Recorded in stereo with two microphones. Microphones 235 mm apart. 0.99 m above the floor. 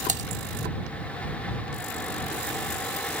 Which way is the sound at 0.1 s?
30° right (ahead or behind).